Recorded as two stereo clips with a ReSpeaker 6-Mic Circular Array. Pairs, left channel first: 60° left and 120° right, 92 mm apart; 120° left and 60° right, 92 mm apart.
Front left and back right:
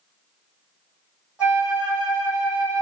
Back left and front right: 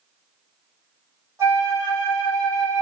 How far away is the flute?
About 1.4 m.